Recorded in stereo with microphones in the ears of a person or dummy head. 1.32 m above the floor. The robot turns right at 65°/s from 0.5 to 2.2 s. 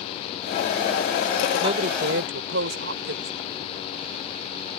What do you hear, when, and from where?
1.6 s a woman speaking: 150° right; by 3.3 s 110° right